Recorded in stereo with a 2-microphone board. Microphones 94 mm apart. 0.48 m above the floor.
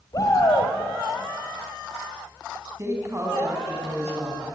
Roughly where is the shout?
Left.